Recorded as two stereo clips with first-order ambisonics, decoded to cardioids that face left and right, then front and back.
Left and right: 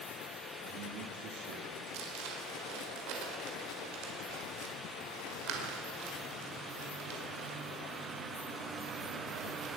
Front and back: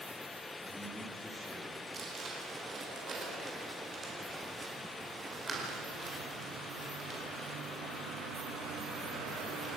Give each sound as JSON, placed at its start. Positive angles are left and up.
{"t": 0.6, "sound": "a man speaking", "azimuth_deg": -85, "distance_m": 3.0}
{"t": 1.9, "sound": "crumpling", "azimuth_deg": -110, "distance_m": 5.0}